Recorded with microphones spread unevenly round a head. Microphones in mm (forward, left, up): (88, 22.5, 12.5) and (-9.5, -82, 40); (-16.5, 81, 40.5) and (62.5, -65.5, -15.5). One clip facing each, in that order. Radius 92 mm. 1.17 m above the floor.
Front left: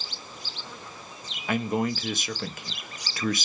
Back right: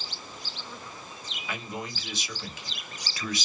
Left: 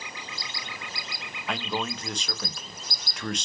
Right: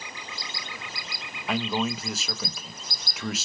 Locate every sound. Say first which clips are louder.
1.5 s a man speaking: front left 11 dB, right 4 dB; 15° left, 0.6 m